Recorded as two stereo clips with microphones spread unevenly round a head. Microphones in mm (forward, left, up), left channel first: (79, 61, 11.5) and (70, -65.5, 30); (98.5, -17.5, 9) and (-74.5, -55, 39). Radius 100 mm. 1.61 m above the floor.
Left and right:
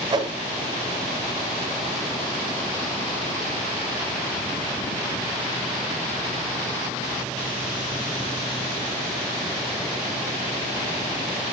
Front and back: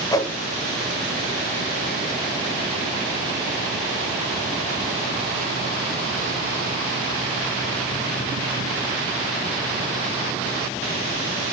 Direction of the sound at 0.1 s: 60° right.